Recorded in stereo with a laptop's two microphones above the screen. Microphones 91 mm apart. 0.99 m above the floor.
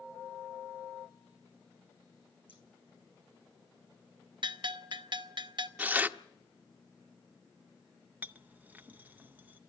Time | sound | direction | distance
2.5 | scissors | 70° left (ahead or behind) | 4.5 m
4.4 | a bell | 60° right (ahead or behind) | 0.8 m
5.8 | tearing paper | 20° right (ahead or behind) | 0.8 m
8.2 | a clink | 20° right (ahead or behind) | 0.6 m